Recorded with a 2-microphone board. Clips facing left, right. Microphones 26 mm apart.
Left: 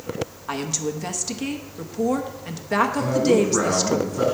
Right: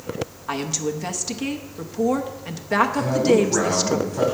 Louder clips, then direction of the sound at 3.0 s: Left 1 dB; 35° right (ahead or behind).